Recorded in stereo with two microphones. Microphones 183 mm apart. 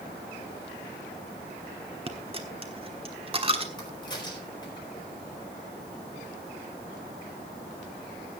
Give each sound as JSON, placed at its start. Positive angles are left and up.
{"t": 2.1, "sound": "a dropped coin", "side_deg": -30, "distance_m": 1.3}
{"t": 3.8, "sound": "a crack", "side_deg": 25, "distance_m": 4.0}